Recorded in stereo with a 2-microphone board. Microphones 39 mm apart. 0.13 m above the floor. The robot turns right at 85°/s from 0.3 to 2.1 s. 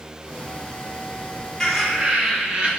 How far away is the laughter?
About 3 m.